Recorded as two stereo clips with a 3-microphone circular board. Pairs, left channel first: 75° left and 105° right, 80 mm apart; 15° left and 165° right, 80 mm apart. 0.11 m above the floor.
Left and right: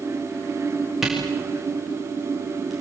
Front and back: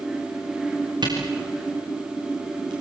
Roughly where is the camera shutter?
Behind.